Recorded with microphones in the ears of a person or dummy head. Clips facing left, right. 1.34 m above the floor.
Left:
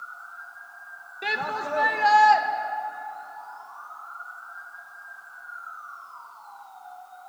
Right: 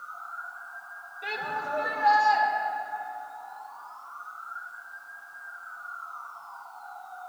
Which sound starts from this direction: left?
A shout, at 1.2 s.